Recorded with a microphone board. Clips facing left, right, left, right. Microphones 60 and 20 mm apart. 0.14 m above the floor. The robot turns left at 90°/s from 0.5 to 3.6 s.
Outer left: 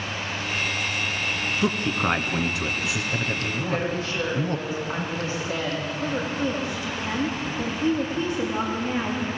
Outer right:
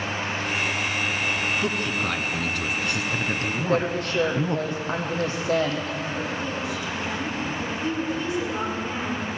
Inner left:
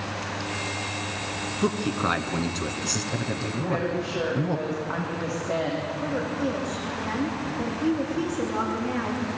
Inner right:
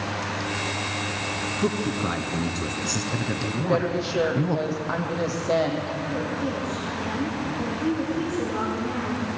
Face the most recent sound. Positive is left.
turn(degrees=30)  # may be behind; listen again after turning